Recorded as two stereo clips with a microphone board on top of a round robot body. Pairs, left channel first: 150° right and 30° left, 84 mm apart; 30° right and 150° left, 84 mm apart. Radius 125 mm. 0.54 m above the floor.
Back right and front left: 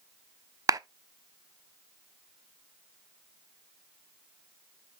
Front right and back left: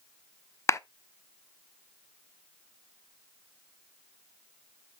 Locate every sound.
0.7 s a clap: 10° left, 0.7 m